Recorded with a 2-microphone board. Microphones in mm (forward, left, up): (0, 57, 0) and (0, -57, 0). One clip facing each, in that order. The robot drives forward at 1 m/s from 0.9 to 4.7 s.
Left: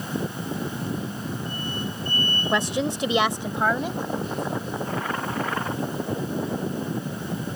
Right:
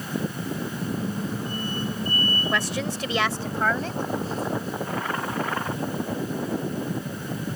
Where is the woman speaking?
20° left (ahead or behind); by 4.0 s 15° left (ahead or behind).